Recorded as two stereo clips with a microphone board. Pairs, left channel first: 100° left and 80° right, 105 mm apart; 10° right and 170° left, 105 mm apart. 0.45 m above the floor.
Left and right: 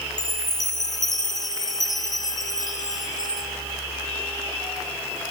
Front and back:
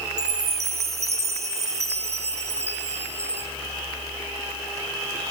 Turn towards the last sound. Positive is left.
turn(degrees=155)